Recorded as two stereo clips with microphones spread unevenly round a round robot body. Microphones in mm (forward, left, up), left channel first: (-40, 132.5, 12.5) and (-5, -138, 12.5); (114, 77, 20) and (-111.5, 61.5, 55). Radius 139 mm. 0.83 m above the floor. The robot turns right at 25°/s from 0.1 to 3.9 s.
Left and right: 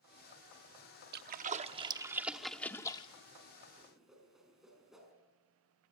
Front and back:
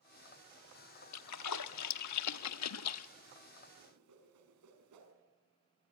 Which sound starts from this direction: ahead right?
A splash, at 1.1 s.